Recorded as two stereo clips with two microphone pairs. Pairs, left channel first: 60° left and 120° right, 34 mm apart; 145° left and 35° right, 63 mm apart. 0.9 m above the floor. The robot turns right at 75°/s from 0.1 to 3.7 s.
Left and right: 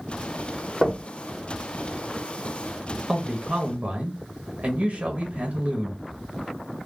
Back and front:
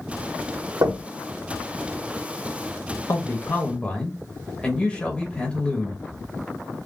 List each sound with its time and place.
0.8 s knocking: 25° right, 1.2 m; by 1.0 s 10° right, 1.2 m
3.1 s a man speaking: 165° left, 1.2 m; by 6.0 s 150° right, 1.2 m